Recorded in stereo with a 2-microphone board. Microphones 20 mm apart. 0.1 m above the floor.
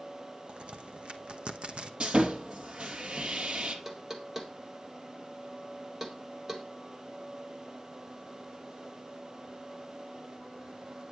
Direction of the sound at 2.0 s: 55° right (ahead or behind).